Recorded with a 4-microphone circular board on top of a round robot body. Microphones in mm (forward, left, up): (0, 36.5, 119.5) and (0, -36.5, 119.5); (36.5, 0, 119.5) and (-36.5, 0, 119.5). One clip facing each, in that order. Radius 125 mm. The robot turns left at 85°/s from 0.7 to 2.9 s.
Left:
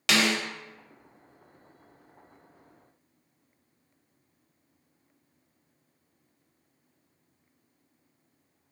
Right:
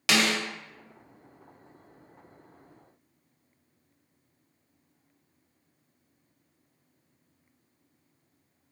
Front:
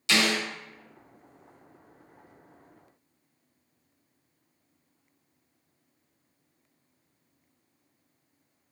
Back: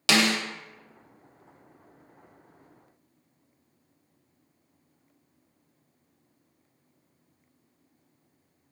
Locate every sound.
0.1 s a snare drum: straight behind, 0.5 m